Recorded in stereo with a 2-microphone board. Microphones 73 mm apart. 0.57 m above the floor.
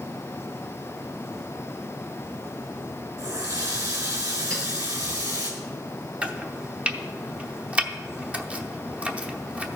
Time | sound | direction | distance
3.2 | a running tap | 55° right (ahead or behind) | 3 m
4.5 | a clink | 45° right (ahead or behind) | 6.5 m
6.2 | chopping | 15° right (ahead or behind) | 0.8 m